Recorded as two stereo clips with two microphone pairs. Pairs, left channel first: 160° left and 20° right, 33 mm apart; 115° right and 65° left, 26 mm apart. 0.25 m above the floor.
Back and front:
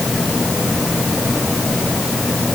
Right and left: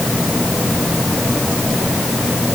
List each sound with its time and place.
Only background noise.